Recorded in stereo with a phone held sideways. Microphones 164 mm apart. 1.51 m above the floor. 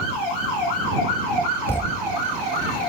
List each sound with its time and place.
1.7 s a thud: 15° left (ahead or behind)